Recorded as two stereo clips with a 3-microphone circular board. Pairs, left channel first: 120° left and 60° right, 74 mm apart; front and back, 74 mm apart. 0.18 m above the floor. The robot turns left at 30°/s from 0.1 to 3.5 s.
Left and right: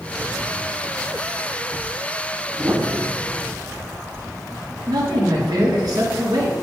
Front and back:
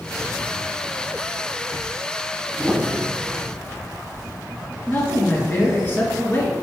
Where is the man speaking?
60° right, 2.5 m.